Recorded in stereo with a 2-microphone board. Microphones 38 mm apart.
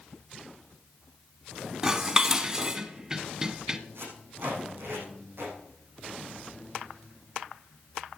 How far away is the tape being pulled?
About 5.5 m.